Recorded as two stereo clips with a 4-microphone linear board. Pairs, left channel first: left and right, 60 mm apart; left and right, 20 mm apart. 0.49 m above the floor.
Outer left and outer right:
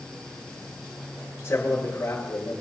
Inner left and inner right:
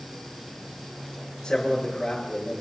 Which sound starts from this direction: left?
A man speaking, at 1.4 s.